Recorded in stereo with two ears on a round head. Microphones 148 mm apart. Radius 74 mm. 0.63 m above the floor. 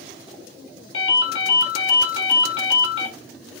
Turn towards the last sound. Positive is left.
turn(degrees=75)  # may be behind; listen again after turning